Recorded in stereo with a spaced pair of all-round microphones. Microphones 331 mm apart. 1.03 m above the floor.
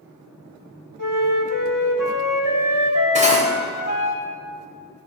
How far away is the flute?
About 2.5 m.